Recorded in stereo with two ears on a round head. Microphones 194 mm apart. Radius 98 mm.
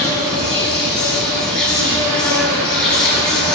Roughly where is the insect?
Centre.